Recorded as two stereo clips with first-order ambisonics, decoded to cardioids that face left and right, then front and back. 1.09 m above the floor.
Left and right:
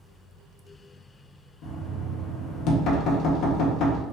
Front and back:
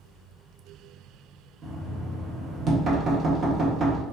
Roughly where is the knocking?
Behind left.